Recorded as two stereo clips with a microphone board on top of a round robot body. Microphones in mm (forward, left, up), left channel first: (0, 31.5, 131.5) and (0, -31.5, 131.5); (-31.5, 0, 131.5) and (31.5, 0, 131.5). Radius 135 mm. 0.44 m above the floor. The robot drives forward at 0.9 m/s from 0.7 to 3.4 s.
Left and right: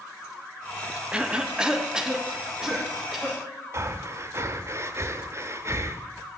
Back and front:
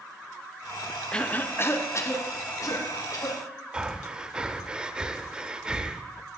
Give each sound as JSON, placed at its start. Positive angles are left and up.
{"t": 1.1, "sound": "a cough", "azimuth_deg": -130, "distance_m": 0.9}
{"t": 3.7, "sound": "breathing", "azimuth_deg": -70, "distance_m": 0.7}